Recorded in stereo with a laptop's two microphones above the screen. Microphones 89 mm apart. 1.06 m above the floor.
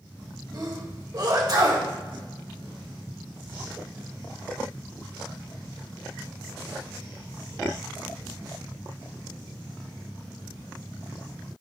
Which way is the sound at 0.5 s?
50° right (ahead or behind).